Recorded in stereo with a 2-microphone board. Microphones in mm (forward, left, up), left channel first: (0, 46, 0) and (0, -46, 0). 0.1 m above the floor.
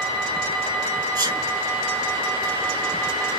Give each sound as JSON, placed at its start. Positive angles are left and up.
{"t": 1.1, "sound": "a sneeze", "side_deg": -40, "distance_m": 2.0}